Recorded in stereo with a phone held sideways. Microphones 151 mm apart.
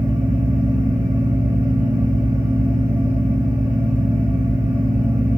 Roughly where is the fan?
Centre.